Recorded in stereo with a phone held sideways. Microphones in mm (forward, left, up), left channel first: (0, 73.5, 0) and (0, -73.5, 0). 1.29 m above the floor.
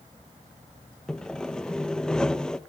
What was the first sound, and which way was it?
Sawing, 5° left (ahead or behind).